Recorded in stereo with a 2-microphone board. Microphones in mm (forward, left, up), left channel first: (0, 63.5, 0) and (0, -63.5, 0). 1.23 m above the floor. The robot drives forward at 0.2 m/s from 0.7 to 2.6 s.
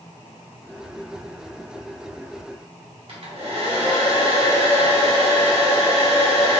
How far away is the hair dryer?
About 1.2 m.